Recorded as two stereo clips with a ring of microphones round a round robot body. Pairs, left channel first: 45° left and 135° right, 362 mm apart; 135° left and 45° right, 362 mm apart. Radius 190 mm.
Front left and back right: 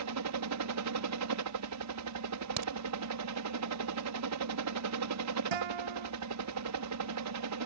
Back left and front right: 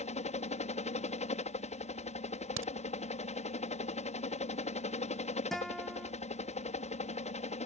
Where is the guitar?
135° right.